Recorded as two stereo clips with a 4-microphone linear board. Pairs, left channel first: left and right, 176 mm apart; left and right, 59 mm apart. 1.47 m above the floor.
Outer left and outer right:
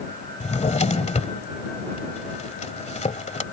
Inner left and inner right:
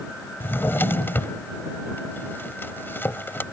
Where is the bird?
I don't hear a bird.